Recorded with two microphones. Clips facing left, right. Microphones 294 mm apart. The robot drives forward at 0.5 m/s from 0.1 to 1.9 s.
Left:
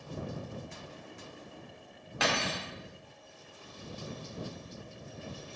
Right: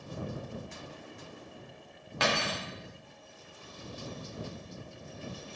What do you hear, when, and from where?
2.2 s cutlery clinking: centre (ahead or behind), 0.7 m